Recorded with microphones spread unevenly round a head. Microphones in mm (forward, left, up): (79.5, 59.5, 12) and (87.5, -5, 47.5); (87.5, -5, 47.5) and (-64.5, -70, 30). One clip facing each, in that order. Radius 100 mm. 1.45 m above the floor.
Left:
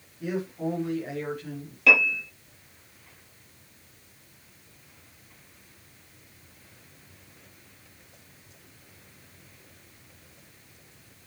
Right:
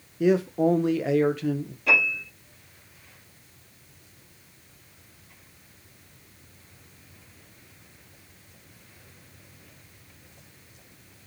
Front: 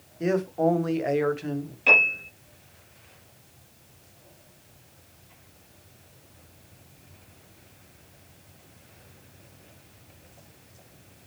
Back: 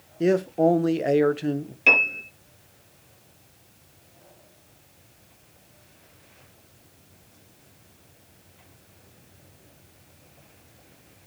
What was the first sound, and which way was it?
A man speaking, 105° right.